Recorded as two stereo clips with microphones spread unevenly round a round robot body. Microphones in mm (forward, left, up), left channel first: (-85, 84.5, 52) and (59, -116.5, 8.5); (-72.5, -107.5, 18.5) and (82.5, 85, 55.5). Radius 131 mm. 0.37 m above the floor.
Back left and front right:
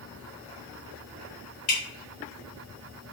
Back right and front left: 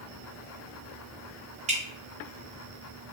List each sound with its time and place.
1.7 s dripping: 115° left, 1.0 m